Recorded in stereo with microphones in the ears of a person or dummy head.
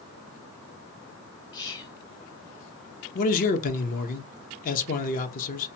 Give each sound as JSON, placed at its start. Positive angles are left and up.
{"t": 1.5, "sound": "whispering", "side_deg": 20, "distance_m": 0.9}
{"t": 3.1, "sound": "a man speaking", "side_deg": 45, "distance_m": 0.7}